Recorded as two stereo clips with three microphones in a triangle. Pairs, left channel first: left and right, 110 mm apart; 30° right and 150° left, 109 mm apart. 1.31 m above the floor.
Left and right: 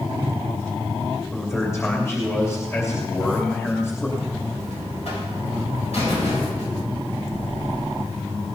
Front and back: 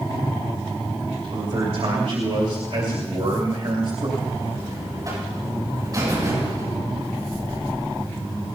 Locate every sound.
1.3 s a man speaking: 155° left, 2.5 m
4.2 s a buzzer: 95° left, 7.5 m